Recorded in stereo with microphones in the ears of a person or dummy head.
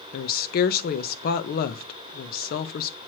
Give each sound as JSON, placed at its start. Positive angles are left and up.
{"t": 0.1, "sound": "a woman speaking", "side_deg": 55, "distance_m": 0.9}